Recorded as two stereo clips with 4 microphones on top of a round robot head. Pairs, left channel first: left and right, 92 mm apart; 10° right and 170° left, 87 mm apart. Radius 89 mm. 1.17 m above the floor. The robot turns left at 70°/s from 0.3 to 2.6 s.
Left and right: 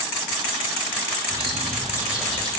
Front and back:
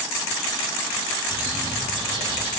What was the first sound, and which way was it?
A bird, 110° right.